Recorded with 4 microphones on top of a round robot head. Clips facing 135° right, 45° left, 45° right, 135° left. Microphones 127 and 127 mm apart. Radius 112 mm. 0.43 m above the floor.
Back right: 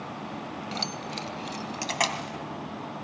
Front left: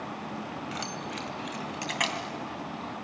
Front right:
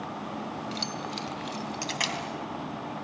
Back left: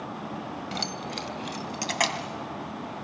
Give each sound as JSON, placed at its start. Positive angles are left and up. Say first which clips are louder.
{"t": 0.7, "sound": "keys jangling", "louder": "back right 1 dB, back left 1 dB", "azimuth_deg": 165, "distance_m": 1.6}